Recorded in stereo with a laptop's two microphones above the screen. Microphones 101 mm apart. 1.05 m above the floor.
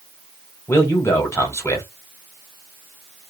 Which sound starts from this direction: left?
A man speaking, at 0.7 s.